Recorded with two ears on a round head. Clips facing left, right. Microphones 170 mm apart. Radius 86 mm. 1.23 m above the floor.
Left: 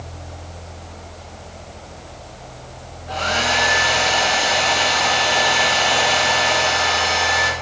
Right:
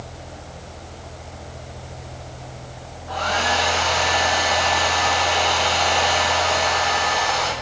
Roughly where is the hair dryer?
Left.